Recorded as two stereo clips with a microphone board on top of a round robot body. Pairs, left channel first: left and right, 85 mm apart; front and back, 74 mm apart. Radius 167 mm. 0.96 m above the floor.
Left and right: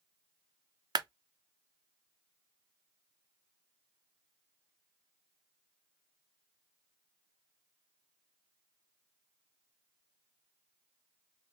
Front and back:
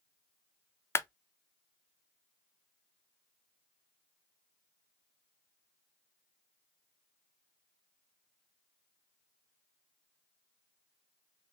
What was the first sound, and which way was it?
A clap, 55° right.